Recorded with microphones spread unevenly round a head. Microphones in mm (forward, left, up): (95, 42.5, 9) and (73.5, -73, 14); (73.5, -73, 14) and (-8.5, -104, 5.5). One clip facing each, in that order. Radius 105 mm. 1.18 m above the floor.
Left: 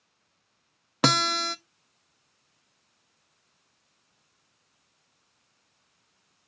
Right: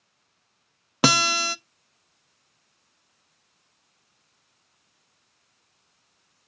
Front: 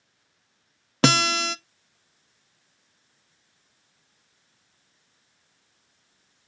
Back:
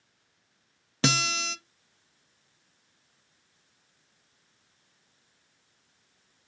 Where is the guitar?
15° right, 0.6 m.